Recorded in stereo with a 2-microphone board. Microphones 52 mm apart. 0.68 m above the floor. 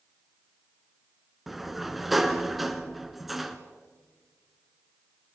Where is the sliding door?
5° right (ahead or behind), 1.3 m.